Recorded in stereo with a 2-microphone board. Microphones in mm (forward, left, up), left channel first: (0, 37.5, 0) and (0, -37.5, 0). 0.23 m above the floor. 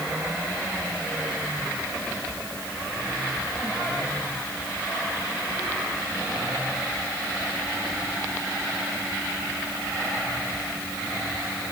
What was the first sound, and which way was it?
Only background noise.